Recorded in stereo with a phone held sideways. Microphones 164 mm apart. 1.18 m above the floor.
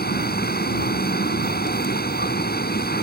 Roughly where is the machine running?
Left.